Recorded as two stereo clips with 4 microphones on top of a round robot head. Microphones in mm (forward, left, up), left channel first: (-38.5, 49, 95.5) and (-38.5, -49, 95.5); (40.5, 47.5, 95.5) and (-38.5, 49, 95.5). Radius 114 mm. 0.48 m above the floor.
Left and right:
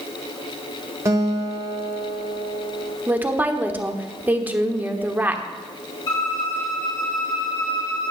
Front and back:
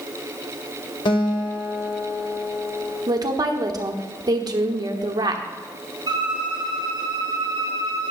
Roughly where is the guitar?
Ahead right.